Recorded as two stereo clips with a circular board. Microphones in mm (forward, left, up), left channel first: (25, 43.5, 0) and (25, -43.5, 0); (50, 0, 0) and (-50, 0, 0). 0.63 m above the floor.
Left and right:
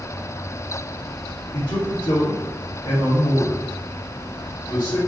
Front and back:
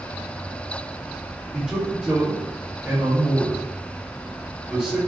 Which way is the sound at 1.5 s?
105° left.